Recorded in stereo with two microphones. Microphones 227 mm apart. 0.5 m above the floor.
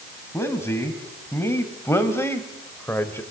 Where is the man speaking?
10° left (ahead or behind), 3 m.